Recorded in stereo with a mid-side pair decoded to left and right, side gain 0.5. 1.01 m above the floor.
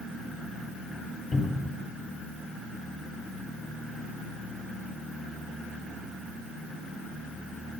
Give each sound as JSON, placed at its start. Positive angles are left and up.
{"t": 1.3, "sound": "a cupboard door", "azimuth_deg": 15, "distance_m": 1.4}